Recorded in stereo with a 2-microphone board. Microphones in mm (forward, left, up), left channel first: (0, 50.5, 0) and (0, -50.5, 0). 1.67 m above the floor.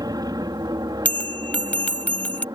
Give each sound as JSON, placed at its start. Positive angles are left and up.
{"t": 0.0, "sound": "an aircraft", "side_deg": -40}
{"t": 1.1, "sound": "a bell", "side_deg": 15}